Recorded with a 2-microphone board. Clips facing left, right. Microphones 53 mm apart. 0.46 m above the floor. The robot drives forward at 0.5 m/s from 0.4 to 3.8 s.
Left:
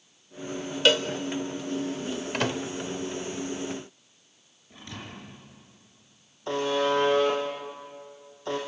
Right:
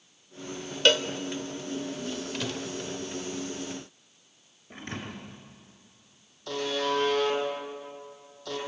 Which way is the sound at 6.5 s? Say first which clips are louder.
Left 4 dB; 30° left (ahead or behind).